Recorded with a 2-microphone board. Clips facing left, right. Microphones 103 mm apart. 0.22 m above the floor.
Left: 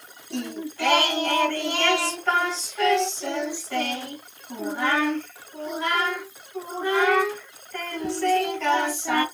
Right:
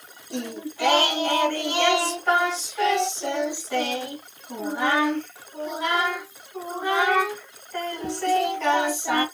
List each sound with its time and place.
0.3 s singing: 15° right (ahead or behind), 1.5 m